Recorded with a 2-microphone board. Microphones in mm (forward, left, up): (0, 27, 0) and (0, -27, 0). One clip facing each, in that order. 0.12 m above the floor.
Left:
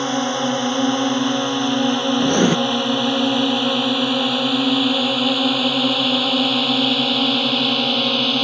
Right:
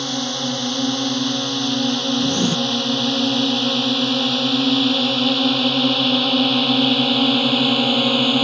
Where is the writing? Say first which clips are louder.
Left 6 dB; 50° left (ahead or behind).